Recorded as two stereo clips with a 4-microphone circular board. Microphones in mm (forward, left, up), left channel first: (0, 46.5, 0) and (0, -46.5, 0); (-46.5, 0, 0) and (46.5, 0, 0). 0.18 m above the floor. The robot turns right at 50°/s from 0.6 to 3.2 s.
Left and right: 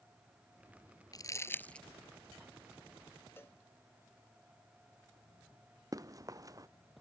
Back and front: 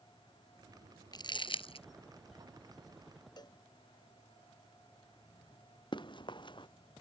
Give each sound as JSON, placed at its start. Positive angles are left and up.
{"t": 1.1, "sound": "crumpling", "azimuth_deg": 135}
{"t": 3.4, "sound": "a cowbell", "azimuth_deg": 150}
{"t": 5.9, "sound": "running footsteps", "azimuth_deg": -145}